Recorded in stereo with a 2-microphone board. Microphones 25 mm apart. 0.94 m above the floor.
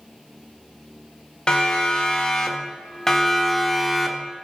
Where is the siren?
30° left (ahead or behind), 4.5 m; by 4.4 s 5° right (ahead or behind), 3.5 m.